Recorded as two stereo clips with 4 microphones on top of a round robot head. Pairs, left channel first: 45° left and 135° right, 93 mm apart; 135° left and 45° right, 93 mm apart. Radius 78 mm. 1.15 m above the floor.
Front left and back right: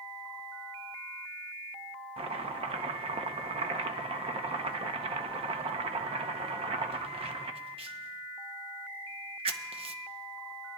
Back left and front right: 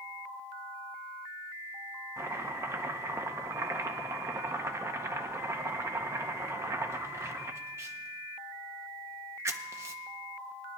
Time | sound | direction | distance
2.2 | chopping | 110° right | 0.7 m